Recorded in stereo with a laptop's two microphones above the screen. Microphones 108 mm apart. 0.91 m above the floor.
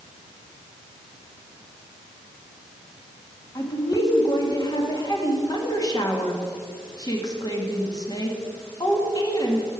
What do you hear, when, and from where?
3.5 s a woman speaking: 35° left (ahead or behind), 1.7 m